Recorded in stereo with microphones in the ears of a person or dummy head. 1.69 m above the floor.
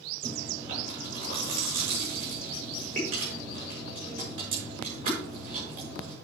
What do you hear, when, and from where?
0.2 s chewing: 55° right (ahead or behind), 7 m